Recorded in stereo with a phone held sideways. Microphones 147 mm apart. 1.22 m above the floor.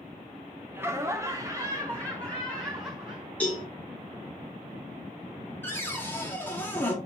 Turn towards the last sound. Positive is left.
turn(degrees=15)  # may be behind; listen again after turning